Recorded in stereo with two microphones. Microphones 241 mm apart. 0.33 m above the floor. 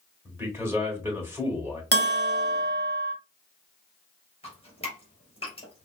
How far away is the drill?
No drill in this recording.